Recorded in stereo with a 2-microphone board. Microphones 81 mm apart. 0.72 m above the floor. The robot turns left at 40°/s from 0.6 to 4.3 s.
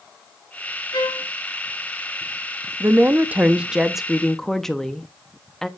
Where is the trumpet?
60° left (ahead or behind), 1.5 m.